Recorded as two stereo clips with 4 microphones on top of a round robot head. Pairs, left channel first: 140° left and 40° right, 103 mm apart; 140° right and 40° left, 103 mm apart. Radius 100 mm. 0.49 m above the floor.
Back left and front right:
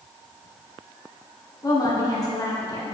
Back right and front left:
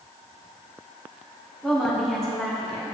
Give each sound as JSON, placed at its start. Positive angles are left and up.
{"t": 1.6, "sound": "a woman speaking", "azimuth_deg": 135, "distance_m": 1.4}